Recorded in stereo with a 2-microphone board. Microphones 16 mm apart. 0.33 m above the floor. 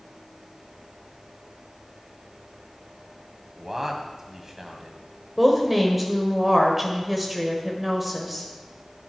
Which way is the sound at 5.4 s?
15° right (ahead or behind).